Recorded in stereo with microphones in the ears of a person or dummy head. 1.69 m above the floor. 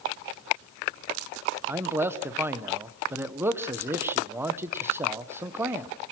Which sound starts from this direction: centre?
A man speaking, at 1.7 s.